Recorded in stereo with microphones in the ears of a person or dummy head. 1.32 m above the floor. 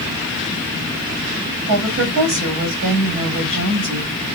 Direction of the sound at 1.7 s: 65° right (ahead or behind).